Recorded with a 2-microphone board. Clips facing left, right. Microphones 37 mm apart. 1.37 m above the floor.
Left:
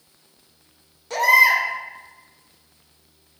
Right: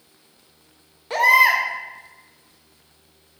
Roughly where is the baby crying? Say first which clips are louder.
Even; right.